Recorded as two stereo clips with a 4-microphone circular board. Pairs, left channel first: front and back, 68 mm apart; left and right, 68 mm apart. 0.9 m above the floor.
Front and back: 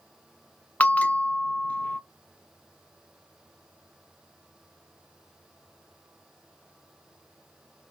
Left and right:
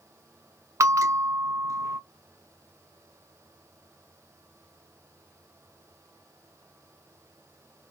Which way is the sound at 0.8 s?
65° right.